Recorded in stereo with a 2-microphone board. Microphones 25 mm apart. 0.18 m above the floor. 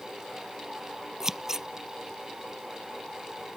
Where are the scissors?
15° right (ahead or behind).